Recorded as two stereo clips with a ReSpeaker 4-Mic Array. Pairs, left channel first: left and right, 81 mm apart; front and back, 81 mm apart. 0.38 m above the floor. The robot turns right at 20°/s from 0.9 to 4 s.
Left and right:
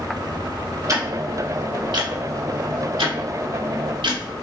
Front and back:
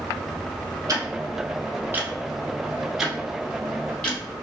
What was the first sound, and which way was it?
Ticking, 135° right.